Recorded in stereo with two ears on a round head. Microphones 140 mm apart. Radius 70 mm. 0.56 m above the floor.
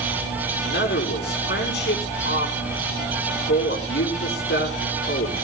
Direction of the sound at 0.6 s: 75° left (ahead or behind).